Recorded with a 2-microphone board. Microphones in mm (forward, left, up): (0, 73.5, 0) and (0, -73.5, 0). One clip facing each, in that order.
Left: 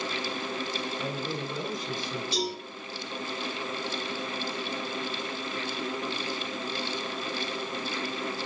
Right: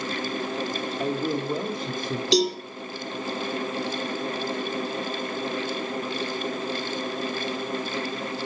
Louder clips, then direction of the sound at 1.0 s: Right 7 dB; 70° right (ahead or behind).